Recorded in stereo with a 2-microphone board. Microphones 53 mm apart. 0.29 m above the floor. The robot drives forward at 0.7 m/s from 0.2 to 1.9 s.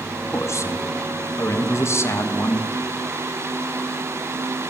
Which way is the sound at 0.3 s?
60° left (ahead or behind).